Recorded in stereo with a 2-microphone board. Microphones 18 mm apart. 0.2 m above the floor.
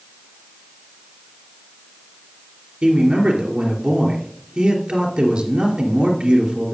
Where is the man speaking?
70° right (ahead or behind), 3 m.